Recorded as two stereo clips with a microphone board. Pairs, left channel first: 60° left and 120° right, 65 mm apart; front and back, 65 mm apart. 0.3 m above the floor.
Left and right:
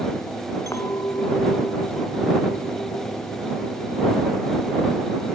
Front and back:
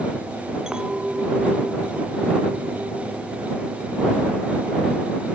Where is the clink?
100° left.